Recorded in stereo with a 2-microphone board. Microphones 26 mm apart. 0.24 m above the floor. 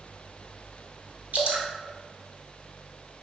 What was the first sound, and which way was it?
Dripping, 65° right (ahead or behind).